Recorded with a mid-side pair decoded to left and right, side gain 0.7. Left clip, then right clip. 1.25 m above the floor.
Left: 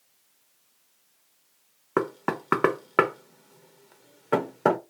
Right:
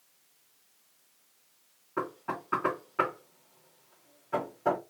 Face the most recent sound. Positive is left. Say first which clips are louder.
# left 7 dB
turn(degrees=65)